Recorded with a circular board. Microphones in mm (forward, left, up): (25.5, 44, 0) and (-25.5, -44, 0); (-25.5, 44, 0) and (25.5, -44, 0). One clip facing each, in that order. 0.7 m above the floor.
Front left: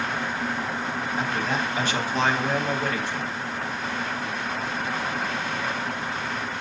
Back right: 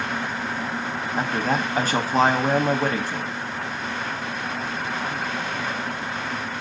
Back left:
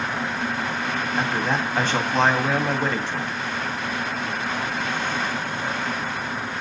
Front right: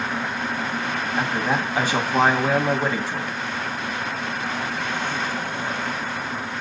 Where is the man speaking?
135° right, 0.8 m.